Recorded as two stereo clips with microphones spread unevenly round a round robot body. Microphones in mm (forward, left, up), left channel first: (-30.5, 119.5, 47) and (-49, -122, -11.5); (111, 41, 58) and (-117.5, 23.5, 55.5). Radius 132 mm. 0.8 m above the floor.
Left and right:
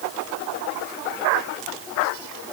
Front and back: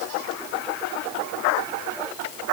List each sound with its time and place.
Only background noise.